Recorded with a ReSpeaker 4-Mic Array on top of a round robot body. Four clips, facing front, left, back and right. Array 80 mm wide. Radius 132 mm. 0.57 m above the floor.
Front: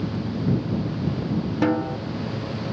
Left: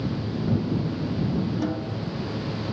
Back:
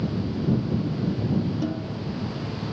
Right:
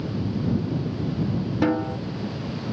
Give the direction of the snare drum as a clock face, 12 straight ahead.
1 o'clock.